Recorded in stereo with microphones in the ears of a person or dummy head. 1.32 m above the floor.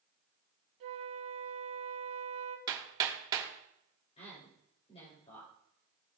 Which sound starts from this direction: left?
A woman speaking, at 4.2 s.